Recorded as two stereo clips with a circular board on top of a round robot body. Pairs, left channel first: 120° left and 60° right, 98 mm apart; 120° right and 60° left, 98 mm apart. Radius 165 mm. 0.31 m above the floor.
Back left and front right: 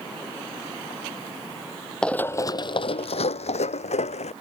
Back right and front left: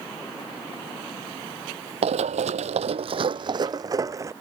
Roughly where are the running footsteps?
Ahead left.